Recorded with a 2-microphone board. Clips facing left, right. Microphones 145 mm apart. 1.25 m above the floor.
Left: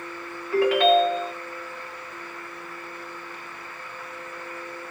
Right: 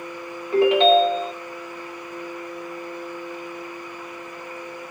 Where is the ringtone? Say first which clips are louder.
Right 3 dB; 20° right (ahead or behind), 1.0 m.